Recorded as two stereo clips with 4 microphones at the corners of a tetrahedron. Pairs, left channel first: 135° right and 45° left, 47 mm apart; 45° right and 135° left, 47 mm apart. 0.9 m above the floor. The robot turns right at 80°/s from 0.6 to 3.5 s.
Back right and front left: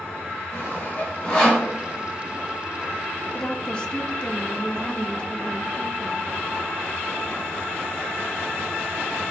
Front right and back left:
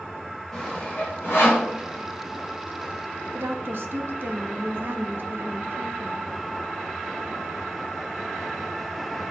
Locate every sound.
0.5 s sawing: 125° right, 3.5 m; by 1.7 s 40° right, 3.5 m
3.3 s a woman speaking: 145° left, 1.1 m; by 6.3 s 155° left, 1.1 m